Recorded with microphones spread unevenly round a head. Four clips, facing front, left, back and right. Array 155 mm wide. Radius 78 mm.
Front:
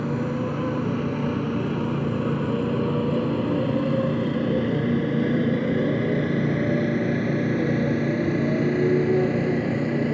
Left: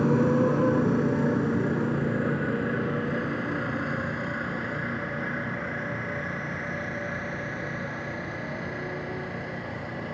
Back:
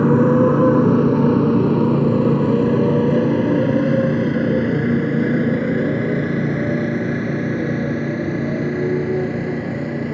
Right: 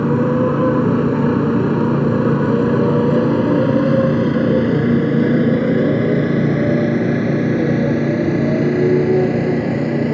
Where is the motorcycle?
160° right; by 10.1 s 95° right.